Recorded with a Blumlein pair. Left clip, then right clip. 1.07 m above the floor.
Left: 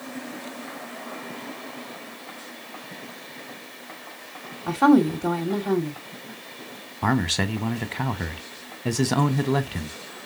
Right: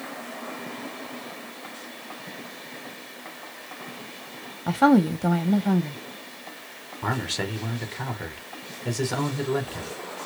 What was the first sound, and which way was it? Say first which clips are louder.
A woman speaking: left 1 dB; 5° right.